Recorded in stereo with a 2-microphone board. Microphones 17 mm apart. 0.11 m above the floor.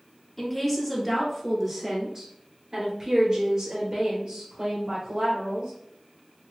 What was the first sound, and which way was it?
A woman speaking, 5° left (ahead or behind).